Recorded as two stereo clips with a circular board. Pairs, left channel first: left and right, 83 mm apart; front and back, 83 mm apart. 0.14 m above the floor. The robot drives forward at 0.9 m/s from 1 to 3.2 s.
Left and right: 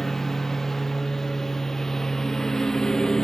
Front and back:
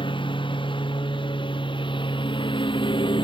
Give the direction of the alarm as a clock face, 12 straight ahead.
I don't hear an alarm.